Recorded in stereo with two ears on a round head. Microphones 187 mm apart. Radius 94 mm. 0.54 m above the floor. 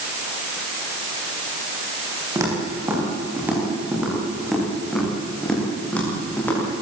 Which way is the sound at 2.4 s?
15° right (ahead or behind).